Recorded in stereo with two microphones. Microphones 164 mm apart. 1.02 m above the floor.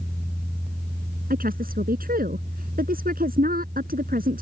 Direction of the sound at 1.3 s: 65° right (ahead or behind).